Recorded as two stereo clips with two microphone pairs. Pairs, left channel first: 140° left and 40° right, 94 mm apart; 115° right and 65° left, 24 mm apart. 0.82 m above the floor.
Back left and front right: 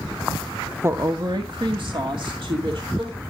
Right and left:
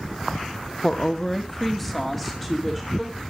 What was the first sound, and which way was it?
A woman speaking, 80° right.